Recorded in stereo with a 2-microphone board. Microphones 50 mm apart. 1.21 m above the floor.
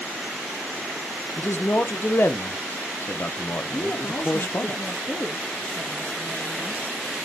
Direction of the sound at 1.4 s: 50° left (ahead or behind).